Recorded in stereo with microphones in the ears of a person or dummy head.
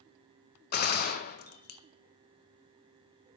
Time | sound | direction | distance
0.7 | a gunshot | 50° left (ahead or behind) | 0.6 m